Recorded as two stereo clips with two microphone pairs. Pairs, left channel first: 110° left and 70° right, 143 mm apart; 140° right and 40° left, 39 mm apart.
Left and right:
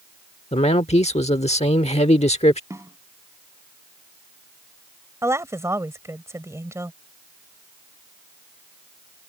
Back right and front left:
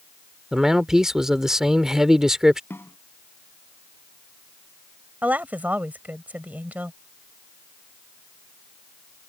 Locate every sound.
0.5 s a man speaking: 115° left
2.7 s a snare drum: 140° right
5.2 s a woman speaking: straight ahead